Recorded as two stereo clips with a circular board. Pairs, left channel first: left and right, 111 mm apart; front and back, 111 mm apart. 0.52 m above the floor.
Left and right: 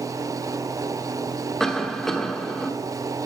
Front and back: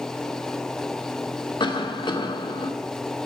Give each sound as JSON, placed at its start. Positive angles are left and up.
{"t": 1.6, "sound": "a cough", "azimuth_deg": 5, "distance_m": 1.2}